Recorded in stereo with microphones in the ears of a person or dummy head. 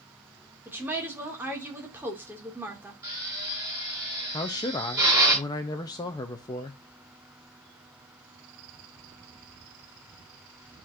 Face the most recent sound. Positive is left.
turn(degrees=20)  # may be behind; listen again after turning